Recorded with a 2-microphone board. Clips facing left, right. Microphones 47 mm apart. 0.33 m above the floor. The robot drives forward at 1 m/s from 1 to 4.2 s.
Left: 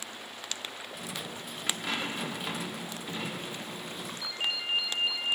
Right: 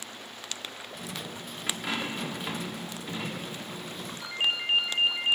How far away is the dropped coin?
About 6 m.